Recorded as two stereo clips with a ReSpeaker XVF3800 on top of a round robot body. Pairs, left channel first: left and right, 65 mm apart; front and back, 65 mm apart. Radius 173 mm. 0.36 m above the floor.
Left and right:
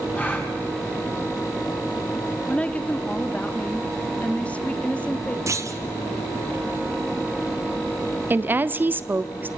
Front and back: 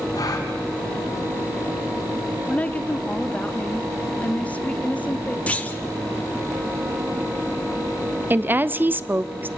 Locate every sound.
0.1 s a gasp: 25° left, 3 m
2.5 s a woman speaking: 40° left, 1.4 m
5.5 s a clunk: 65° right, 1.5 m
8.3 s a woman speaking: 135° right, 1.0 m